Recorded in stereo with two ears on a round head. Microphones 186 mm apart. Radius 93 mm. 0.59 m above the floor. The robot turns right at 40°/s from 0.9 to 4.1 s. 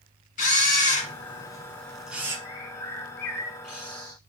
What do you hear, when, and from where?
0.4 s a camera shutter: 45° left (ahead or behind), 1.9 m; by 2.4 s 15° right (ahead or behind), 1.9 m
2.5 s a bird: 135° left, 3 m; by 4.2 s 160° right, 3 m